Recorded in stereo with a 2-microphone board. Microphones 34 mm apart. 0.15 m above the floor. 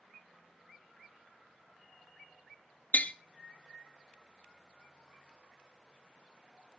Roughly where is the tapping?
Left.